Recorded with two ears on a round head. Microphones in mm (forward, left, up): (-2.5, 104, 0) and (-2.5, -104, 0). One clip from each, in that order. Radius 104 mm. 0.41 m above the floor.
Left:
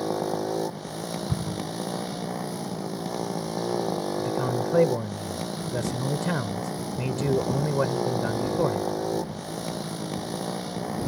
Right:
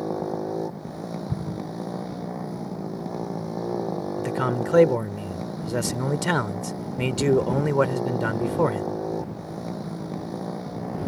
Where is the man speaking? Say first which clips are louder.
Right 1 dB; 35° right (ahead or behind).